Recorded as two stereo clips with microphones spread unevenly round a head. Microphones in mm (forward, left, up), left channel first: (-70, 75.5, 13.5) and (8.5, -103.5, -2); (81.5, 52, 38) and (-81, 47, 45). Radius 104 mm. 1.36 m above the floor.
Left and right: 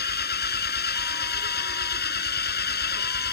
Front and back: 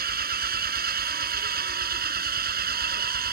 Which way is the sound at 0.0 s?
155° left.